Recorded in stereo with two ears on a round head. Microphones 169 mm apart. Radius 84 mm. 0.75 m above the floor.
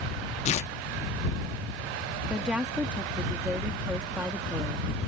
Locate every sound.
0.5 s tearing paper: 35° left (ahead or behind)
2.3 s a woman speaking: 5° right (ahead or behind)